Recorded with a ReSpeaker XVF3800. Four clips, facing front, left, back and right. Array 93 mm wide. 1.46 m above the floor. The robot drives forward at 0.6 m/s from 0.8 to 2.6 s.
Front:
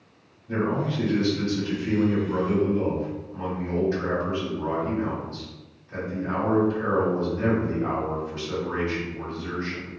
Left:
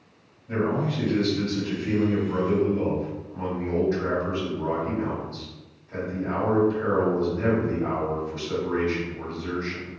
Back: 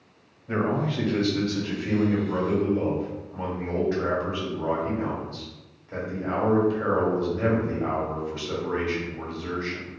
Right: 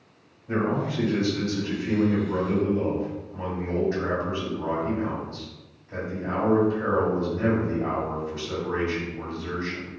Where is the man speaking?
155° right, 0.6 m; by 9.9 s 170° right, 1.5 m.